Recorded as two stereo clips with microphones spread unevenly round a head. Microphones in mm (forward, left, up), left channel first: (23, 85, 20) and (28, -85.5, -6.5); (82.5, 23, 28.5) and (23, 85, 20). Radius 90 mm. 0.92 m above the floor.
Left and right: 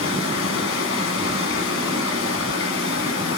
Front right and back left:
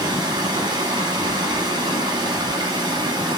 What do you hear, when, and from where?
0.0 s running water: 100° left, 1.1 m